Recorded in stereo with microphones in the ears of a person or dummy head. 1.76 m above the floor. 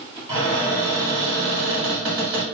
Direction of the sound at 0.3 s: 20° right (ahead or behind).